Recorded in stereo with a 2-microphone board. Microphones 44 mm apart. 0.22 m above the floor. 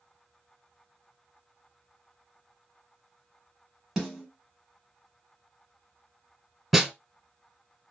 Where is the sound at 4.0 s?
10° right (ahead or behind), 1.1 m.